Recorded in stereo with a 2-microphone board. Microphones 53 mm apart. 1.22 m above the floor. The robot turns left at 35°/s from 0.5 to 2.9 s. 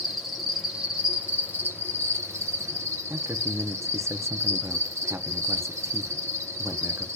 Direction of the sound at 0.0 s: 5° right.